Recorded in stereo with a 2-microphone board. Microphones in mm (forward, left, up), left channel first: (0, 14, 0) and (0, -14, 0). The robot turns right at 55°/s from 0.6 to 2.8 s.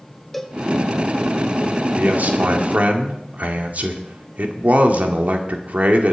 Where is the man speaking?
115° right, 1.9 m; by 6.1 s 70° right, 1.9 m.